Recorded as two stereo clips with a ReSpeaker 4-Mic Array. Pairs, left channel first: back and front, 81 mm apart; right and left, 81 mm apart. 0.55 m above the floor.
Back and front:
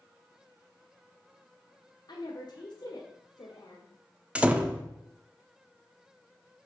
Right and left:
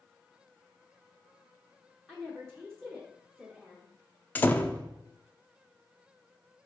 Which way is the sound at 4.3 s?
55° right.